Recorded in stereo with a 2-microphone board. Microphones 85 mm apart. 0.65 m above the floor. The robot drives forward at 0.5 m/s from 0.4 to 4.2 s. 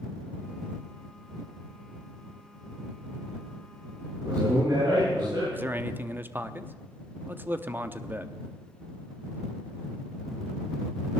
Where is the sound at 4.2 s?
55° right (ahead or behind), 9.5 m.